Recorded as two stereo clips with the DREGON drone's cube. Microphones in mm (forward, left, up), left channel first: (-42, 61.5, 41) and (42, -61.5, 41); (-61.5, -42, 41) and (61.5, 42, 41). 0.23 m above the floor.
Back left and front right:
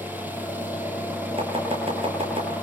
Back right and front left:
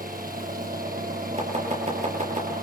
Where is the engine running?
20° left, 5.5 m.